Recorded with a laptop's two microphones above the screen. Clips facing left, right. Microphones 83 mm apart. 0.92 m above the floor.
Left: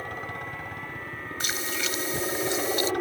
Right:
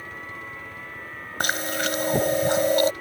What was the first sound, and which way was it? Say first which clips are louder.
A helicopter: left 3 dB; 60° left (ahead or behind).